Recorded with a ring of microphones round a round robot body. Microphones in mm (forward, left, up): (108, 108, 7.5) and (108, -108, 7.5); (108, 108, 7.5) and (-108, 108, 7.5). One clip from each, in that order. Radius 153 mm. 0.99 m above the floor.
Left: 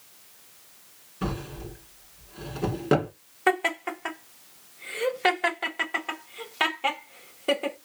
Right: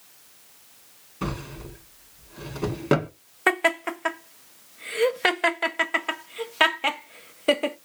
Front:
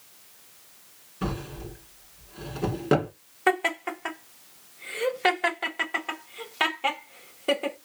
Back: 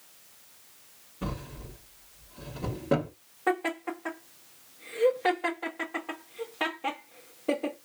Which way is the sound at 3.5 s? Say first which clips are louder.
Right 3 dB, front 5 dB; 40° right.